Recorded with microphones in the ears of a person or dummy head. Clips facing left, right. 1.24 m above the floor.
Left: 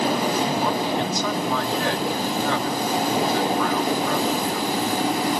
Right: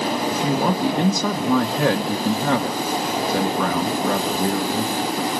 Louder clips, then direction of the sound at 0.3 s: Right 2 dB; 45° right (ahead or behind).